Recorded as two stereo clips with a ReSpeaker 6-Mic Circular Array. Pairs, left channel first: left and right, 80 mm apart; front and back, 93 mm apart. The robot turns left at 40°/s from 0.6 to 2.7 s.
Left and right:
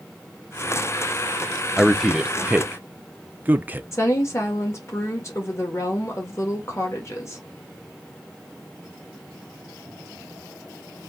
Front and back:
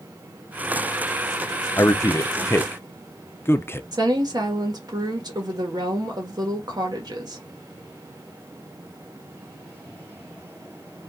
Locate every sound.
1.8 s a man speaking: straight ahead, 0.5 m; by 3.8 s 40° right, 0.5 m
3.9 s a woman speaking: 140° left, 1.4 m